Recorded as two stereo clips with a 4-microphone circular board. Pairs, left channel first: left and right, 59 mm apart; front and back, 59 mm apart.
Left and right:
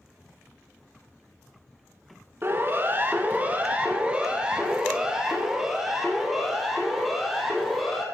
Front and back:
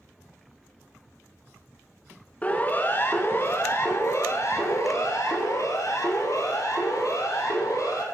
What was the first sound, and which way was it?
A siren, 60° right.